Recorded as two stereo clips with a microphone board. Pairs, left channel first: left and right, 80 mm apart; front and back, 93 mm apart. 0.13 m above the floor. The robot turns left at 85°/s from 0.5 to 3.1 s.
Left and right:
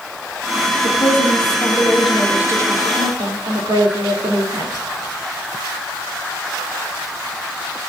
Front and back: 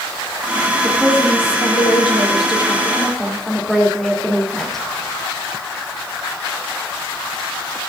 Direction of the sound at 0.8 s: 105° left.